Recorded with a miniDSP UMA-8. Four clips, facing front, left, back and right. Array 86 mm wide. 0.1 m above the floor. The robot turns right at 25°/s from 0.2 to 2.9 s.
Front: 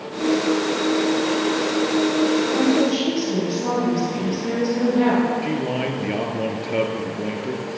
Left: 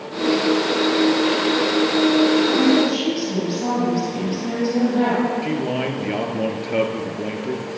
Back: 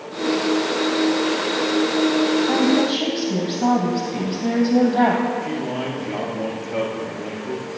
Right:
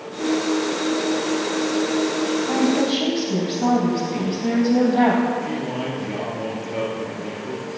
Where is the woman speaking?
155° right, 4 m; by 5.2 s 145° right, 4 m.